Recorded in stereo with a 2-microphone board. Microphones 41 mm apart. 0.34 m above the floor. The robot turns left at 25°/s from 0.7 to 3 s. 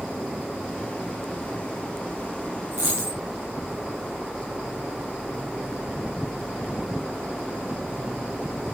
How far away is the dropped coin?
About 3.5 m.